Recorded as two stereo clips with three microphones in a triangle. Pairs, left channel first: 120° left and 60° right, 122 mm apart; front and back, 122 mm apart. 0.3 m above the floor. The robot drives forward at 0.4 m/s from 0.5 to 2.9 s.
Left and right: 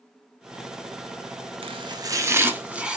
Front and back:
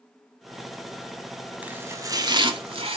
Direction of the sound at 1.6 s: 105° right.